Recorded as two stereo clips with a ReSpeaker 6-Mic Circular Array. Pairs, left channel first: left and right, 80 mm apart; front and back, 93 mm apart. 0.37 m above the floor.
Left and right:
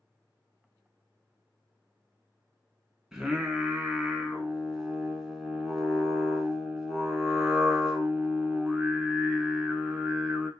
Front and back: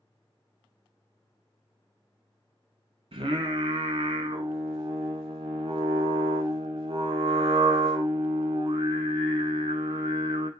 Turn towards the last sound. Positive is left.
turn(degrees=-170)